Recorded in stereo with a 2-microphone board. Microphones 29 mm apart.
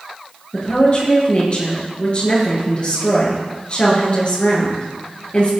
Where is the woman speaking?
45° left (ahead or behind), 4.5 m.